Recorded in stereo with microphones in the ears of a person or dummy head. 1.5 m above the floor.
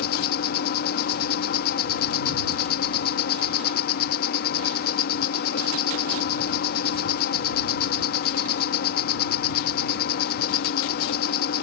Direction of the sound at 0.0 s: 55° left (ahead or behind).